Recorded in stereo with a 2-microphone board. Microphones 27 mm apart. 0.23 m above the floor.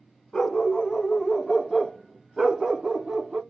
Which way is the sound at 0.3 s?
20° left (ahead or behind).